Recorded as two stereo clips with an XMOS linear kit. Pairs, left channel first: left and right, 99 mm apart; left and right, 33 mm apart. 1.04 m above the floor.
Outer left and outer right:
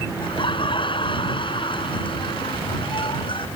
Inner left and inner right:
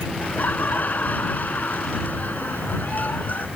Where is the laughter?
55° left (ahead or behind).